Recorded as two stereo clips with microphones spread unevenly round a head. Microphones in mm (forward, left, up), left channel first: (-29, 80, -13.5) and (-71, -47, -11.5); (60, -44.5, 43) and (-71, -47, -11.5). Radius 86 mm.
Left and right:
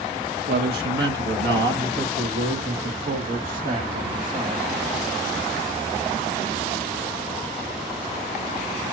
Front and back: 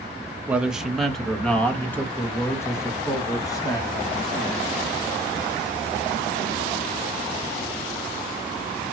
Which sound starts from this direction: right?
A man speaking, at 0.5 s.